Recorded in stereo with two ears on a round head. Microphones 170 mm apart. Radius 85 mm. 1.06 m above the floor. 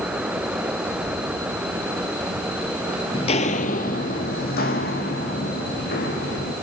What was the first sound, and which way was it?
Footsteps, 30° left (ahead or behind).